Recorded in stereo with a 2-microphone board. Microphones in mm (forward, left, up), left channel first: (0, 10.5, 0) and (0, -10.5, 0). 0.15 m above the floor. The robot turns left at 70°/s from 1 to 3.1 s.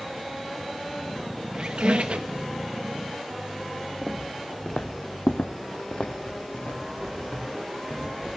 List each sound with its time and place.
1.5 s a squeak: 55° right, 0.9 m; by 2.5 s 115° right, 0.9 m
4.0 s footsteps: 5° right (ahead or behind), 1.4 m; by 8.4 s 40° left (ahead or behind), 4 m